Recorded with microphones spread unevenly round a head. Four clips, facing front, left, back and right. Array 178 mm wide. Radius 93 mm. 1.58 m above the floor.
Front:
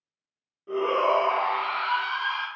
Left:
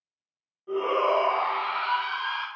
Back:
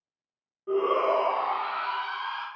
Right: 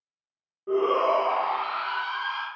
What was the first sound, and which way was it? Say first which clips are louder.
A shout: right 2 dB, front 1 dB; 95° right.